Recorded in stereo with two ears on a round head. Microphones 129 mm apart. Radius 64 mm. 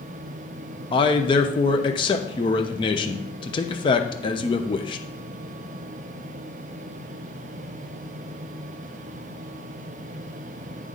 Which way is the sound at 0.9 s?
35° left (ahead or behind).